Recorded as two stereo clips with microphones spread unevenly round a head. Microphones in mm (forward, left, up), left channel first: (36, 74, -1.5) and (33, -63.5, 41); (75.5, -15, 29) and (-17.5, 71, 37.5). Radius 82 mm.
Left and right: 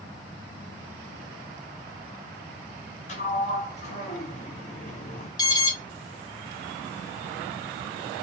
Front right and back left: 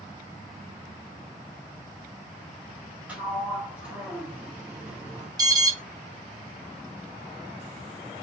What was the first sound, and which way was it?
A sliding door, 75° left.